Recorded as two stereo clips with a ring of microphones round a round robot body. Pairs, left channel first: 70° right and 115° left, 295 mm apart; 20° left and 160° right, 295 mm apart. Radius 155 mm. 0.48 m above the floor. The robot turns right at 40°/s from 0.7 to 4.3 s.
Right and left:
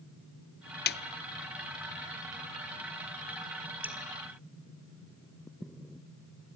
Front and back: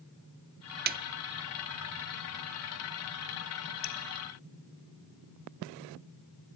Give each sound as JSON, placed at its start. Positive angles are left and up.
{"t": 0.9, "sound": "a snare drum", "azimuth_deg": -110, "distance_m": 0.6}
{"t": 3.8, "sound": "dripping", "azimuth_deg": 30, "distance_m": 2.0}